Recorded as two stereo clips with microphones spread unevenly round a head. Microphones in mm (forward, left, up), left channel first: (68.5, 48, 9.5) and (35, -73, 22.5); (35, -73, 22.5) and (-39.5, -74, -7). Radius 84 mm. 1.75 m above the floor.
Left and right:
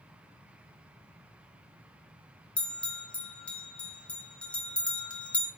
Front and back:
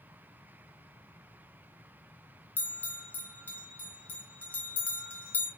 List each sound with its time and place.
2.6 s a bell: 10° right, 0.6 m